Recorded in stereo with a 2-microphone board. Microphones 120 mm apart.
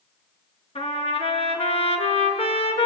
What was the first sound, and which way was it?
A trumpet, 50° left (ahead or behind).